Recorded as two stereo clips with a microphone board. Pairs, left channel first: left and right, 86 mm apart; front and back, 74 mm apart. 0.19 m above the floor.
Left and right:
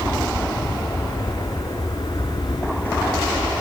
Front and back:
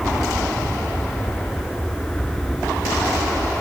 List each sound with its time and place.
0.0 s an aircraft: 80° left